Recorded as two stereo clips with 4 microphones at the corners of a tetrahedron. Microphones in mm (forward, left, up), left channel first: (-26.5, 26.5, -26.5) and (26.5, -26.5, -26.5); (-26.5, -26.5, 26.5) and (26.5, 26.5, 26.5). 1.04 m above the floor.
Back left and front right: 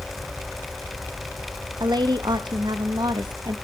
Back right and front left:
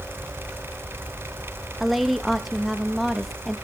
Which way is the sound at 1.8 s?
45° right.